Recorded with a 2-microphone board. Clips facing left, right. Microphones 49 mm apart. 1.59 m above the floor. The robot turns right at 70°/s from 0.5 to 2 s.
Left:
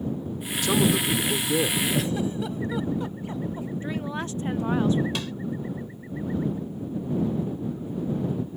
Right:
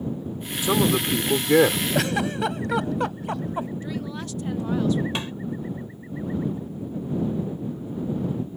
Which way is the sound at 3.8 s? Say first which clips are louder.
Left 1 dB; 30° left (ahead or behind).